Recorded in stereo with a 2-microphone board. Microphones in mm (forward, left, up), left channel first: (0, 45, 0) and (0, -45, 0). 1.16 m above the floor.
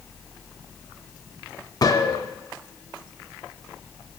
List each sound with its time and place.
1.8 s a gunshot: 45° left (ahead or behind), 1.8 m